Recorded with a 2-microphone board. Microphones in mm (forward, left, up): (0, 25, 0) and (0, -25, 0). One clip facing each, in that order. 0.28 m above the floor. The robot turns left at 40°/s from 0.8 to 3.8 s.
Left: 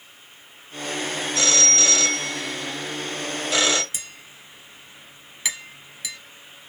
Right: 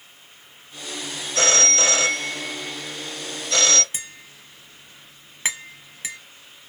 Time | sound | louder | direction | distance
1.4 | a phone ringing | right 3 dB | 110° right | 0.6 m
3.9 | tapping | right 1 dB | 35° right (ahead or behind) | 0.8 m